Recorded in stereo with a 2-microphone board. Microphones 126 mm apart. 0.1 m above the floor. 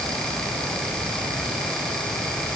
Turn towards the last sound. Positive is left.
No sound to turn to.